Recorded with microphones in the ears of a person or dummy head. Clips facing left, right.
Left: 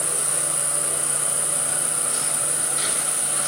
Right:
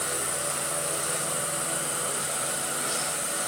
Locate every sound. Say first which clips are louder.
0.0 s an insect: even; 35° left (ahead or behind), 0.9 m